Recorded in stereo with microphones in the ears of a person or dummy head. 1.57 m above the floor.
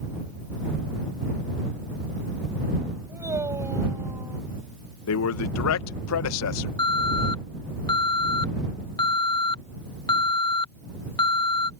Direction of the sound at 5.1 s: 80° left.